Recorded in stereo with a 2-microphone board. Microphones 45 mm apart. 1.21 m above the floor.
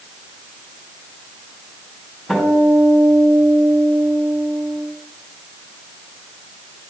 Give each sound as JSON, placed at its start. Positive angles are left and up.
{"t": 2.3, "sound": "a guitar", "side_deg": 0, "distance_m": 2.5}